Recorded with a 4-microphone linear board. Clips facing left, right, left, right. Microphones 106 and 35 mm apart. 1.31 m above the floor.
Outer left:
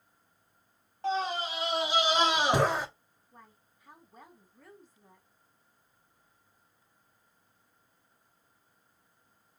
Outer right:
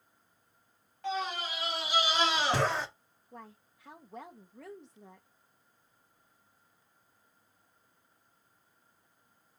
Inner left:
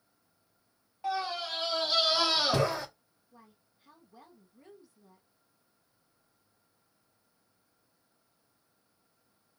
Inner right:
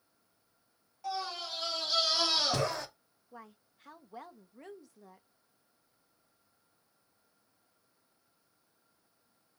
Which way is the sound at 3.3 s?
85° right.